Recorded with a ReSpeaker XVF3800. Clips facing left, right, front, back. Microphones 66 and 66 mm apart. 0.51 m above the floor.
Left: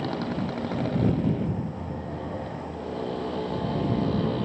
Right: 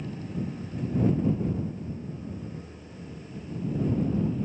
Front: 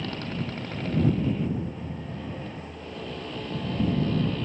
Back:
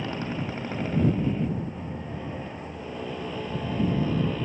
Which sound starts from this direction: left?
A motorcycle, at 0.0 s.